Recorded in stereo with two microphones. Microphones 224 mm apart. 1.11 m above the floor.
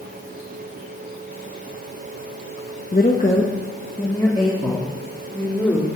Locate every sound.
2.9 s a woman speaking: 40° left (ahead or behind), 1.1 m; by 5.9 s 10° left (ahead or behind), 3 m